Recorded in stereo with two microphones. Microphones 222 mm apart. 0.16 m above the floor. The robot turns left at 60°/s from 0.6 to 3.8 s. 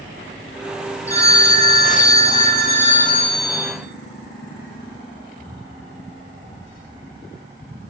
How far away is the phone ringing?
About 0.6 m.